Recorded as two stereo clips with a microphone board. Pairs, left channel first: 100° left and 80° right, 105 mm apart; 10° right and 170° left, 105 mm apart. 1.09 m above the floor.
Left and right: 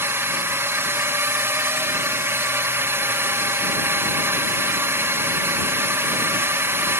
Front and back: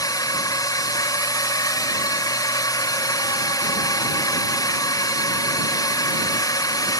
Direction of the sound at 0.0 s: 25° right.